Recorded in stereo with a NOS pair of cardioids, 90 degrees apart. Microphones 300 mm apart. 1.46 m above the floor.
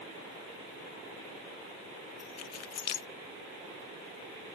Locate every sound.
2.2 s keys jangling: 60° left